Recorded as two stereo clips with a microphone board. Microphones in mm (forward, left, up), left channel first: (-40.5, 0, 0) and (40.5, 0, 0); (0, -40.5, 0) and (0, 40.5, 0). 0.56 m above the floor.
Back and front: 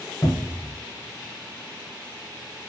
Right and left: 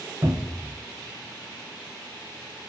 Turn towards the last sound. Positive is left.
turn(degrees=140)